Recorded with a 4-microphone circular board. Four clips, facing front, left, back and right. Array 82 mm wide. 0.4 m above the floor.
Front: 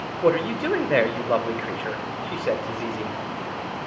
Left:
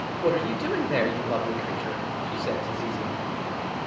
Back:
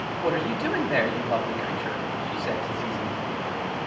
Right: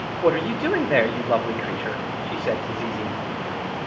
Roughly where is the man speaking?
Ahead right.